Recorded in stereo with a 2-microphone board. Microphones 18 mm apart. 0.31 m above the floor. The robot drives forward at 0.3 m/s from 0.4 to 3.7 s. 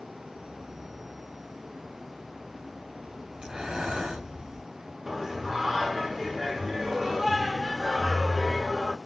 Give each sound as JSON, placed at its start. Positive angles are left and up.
{"t": 3.4, "sound": "breathing", "side_deg": -60, "distance_m": 4.5}
{"t": 5.1, "sound": "singing", "side_deg": -25, "distance_m": 1.6}